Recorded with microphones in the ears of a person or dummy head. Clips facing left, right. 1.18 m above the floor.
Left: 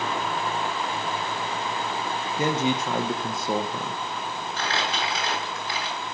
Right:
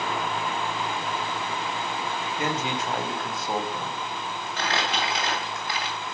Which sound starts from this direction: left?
A man speaking, at 2.4 s.